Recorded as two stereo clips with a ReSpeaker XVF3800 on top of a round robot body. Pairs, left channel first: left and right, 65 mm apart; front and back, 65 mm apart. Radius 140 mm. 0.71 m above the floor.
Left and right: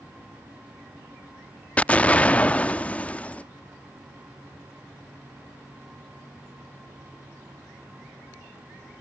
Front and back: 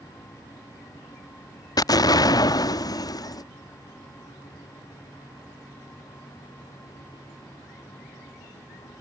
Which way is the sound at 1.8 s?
20° left.